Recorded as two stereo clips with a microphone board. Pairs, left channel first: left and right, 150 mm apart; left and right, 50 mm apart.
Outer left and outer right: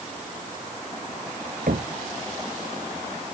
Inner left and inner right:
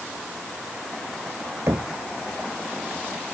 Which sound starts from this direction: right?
Knocking, at 1.7 s.